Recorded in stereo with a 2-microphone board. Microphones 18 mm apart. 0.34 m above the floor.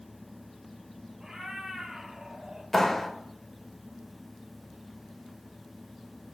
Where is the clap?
20° left (ahead or behind), 0.6 m.